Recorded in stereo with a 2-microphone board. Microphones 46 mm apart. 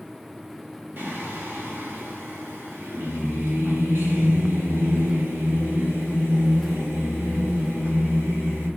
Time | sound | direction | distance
1.0 | singing | 55° right (ahead or behind) | 0.6 m